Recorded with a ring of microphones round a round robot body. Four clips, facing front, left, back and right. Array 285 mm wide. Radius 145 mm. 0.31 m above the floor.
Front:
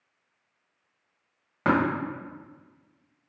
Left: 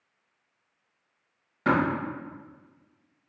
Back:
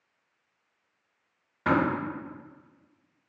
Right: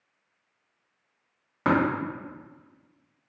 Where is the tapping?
35° right, 1.8 m.